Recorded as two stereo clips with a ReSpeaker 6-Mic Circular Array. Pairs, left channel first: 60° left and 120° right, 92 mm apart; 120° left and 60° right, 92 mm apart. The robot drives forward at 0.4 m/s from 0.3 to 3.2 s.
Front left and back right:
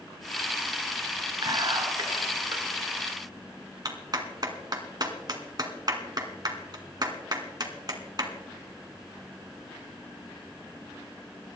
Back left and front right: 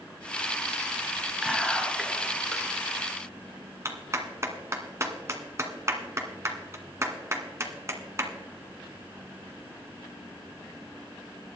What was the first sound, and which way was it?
Whispering, 150° right.